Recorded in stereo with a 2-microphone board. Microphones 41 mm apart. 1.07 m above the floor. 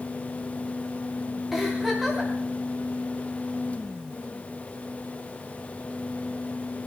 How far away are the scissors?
I don't hear scissors.